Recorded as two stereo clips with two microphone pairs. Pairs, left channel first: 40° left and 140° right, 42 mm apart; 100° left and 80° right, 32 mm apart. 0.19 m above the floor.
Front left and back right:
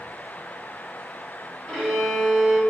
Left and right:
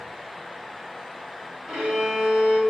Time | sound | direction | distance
1.7 | a violin | 35° right | 1.1 m